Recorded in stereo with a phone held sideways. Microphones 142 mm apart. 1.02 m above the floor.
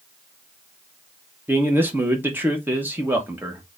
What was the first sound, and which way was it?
A man speaking, 15° right (ahead or behind).